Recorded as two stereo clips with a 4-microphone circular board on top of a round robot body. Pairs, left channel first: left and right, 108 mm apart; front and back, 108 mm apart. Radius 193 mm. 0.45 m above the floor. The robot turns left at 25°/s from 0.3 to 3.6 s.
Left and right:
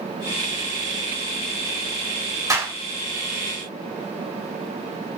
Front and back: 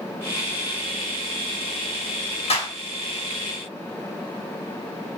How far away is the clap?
About 4.5 m.